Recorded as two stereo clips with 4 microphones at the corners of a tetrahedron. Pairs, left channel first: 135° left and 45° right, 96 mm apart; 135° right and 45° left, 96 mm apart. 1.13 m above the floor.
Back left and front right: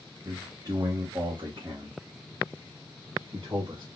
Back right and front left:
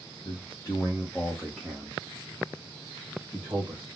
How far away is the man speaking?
About 0.9 m.